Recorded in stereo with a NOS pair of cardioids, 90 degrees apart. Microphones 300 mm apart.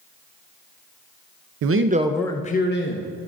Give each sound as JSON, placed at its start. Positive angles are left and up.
{"t": 1.6, "sound": "a man speaking", "azimuth_deg": -60, "distance_m": 0.7}